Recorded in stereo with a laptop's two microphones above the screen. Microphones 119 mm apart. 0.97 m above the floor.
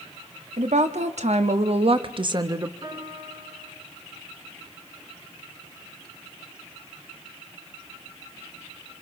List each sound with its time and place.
0.6 s a woman speaking: 75° right (ahead or behind), 1.8 m; by 2.7 s 25° right (ahead or behind), 1.0 m
2.8 s a piano: 40° right (ahead or behind), 9.5 m